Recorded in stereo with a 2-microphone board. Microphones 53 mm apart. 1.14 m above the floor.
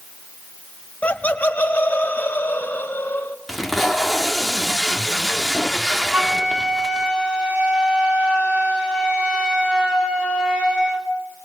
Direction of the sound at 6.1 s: 20° right (ahead or behind).